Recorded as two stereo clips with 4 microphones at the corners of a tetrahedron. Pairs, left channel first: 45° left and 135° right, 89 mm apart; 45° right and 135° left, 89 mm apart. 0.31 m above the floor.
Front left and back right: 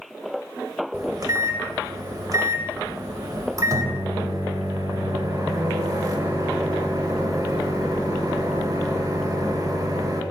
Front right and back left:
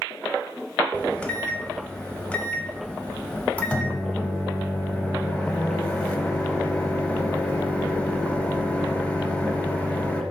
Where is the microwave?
110° right, 0.9 m.